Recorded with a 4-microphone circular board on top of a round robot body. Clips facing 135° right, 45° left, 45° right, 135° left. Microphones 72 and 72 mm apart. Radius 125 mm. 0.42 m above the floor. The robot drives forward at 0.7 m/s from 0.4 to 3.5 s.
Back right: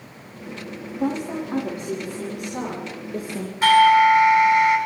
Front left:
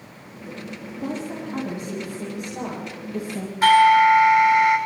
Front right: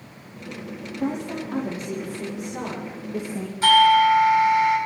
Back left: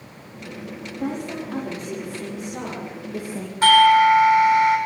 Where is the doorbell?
130° left, 7 m.